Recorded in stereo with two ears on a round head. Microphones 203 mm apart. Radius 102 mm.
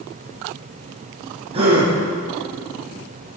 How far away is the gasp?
About 9 m.